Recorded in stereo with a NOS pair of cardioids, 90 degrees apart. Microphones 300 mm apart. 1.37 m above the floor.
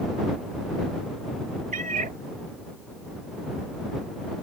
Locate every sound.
1.7 s a cat meowing: 25° right